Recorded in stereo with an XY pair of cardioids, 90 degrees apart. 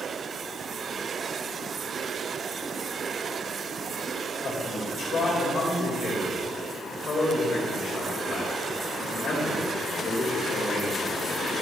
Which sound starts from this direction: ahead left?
A man speaking, at 4.4 s.